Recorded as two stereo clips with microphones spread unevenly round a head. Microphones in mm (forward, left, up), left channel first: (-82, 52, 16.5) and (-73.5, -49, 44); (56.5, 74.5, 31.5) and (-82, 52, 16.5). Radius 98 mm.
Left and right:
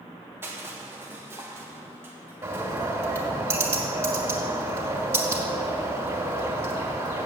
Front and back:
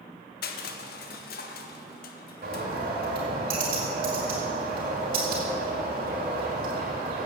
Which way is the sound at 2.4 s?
130° right.